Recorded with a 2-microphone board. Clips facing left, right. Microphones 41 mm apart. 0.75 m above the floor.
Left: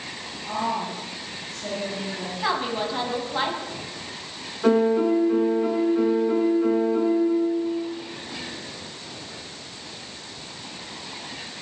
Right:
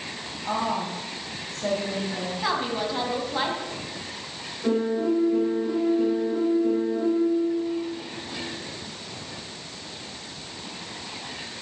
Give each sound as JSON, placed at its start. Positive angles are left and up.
{"t": 0.5, "sound": "a woman speaking", "side_deg": -40, "distance_m": 5.5}
{"t": 2.4, "sound": "a woman speaking", "side_deg": 5, "distance_m": 4.5}
{"t": 4.6, "sound": "a piano", "side_deg": 80, "distance_m": 5.0}